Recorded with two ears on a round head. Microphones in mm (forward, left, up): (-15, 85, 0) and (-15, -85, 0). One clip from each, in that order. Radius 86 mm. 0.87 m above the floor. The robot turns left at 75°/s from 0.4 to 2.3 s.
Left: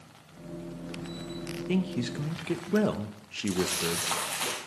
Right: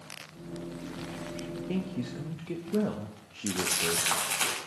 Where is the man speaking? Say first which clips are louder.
Left 7 dB; 135° left, 0.5 m; by 4.1 s 90° left, 0.5 m.